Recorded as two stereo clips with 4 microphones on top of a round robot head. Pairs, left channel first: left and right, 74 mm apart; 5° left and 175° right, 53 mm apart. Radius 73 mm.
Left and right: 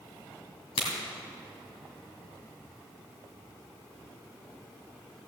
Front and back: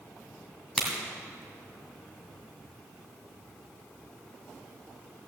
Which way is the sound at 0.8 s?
95° left.